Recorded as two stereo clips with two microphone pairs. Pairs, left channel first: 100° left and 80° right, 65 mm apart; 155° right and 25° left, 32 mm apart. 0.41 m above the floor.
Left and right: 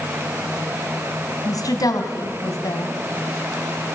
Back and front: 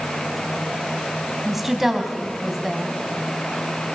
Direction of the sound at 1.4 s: 105° left.